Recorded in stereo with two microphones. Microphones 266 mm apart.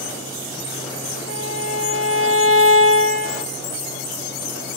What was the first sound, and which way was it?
A violin, 55° right (ahead or behind).